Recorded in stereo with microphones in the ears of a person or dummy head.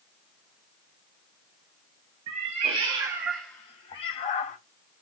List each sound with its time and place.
2.3 s a cat meowing: 35° right (ahead or behind), 0.9 m; by 4.6 s 45° left (ahead or behind), 0.8 m